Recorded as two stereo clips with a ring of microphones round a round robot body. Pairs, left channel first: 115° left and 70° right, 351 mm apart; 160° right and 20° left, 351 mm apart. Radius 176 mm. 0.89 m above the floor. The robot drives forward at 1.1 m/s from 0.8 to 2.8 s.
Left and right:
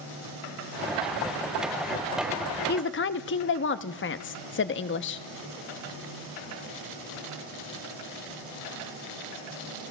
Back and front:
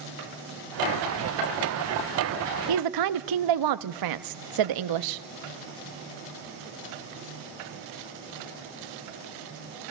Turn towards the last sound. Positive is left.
turn(degrees=55)